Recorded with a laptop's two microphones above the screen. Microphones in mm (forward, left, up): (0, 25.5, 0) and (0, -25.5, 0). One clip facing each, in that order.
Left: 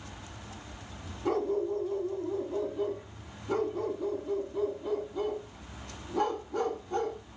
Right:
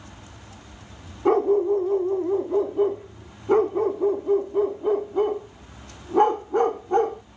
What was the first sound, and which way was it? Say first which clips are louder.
A dog barking: right 10 dB; 35° right (ahead or behind).